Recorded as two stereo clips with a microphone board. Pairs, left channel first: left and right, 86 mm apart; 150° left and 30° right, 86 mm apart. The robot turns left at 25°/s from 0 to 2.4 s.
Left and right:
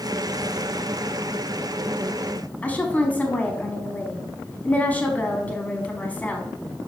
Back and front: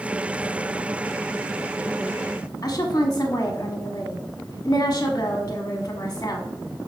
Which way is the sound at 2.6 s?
150° left.